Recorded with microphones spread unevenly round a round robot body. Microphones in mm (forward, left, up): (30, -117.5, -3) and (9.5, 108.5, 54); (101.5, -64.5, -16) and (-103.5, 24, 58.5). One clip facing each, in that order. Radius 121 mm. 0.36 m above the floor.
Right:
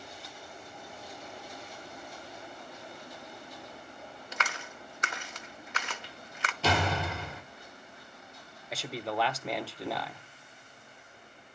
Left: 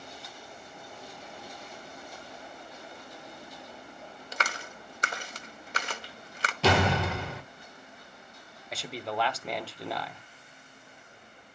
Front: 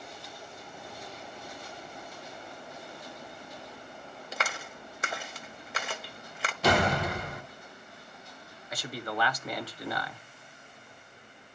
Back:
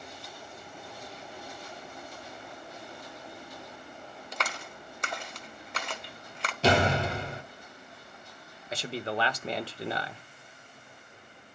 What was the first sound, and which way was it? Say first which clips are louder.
A clap: left 3 dB, front 1 dB; 40° left.